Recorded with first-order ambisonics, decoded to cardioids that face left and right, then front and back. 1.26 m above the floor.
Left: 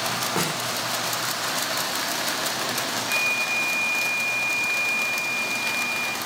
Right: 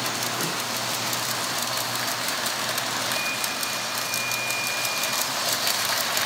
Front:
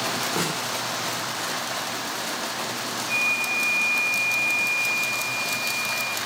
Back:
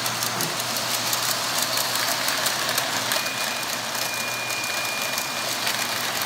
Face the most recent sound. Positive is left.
turn(degrees=45)